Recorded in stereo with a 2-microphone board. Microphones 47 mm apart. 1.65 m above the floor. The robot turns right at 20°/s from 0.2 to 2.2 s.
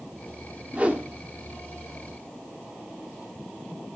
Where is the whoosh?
25° right (ahead or behind), 1.5 m; by 1.1 s 30° right (ahead or behind), 1.5 m.